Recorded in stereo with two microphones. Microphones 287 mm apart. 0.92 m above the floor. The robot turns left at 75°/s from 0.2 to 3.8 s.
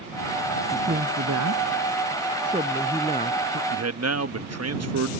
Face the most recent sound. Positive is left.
turn(degrees=-60)  # may be behind; listen again after turning